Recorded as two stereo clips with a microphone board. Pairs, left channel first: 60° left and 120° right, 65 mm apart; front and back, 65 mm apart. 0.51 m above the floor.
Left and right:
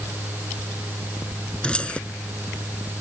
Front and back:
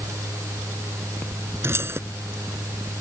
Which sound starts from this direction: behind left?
Keys jangling, at 1.6 s.